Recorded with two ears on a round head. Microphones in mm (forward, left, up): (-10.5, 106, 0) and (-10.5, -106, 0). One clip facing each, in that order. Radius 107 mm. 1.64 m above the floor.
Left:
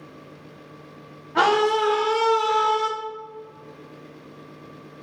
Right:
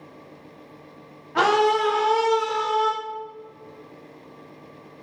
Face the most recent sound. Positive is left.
turn(degrees=30)  # may be behind; listen again after turning